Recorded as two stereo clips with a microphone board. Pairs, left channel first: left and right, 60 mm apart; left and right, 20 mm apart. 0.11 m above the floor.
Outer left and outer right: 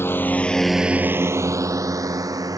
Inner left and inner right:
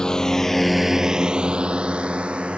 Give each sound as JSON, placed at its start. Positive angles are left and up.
{"t": 0.0, "sound": "a drone", "side_deg": 40}